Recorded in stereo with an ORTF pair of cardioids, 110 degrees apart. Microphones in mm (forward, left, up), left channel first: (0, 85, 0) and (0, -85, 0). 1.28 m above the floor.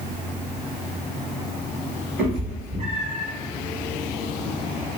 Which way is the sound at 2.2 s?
60° right.